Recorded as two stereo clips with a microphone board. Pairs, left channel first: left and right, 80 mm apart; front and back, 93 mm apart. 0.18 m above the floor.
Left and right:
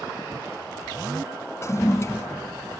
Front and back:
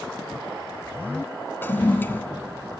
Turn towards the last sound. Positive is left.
turn(degrees=60)